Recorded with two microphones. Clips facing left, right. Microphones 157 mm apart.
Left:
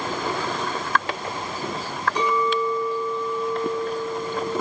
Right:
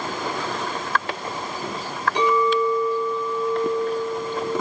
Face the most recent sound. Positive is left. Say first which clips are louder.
# right 4 dB
turn(degrees=-70)  # may be behind; listen again after turning